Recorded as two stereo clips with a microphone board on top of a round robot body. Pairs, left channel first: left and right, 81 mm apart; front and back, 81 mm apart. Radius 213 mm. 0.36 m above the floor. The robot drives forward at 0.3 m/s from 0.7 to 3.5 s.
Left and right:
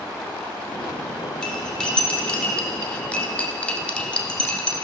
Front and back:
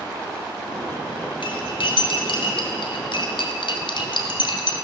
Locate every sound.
1.4 s cutlery clinking: 10° left, 1.7 m; by 4.8 s 15° left, 1.2 m